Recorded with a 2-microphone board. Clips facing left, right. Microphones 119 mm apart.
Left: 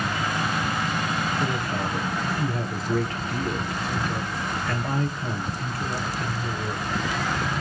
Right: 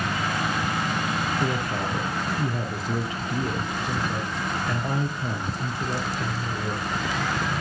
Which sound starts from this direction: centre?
A man speaking, at 1.4 s.